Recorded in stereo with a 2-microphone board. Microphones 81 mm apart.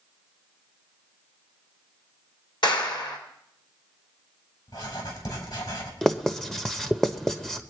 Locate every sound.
2.6 s a clap: 65° left (ahead or behind), 3 m
4.7 s writing: 60° left (ahead or behind), 4.5 m
6.0 s writing: 5° left (ahead or behind), 0.9 m